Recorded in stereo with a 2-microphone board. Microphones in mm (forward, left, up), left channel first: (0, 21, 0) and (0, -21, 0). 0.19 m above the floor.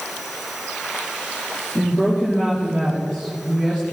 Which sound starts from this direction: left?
A woman speaking, at 1.8 s.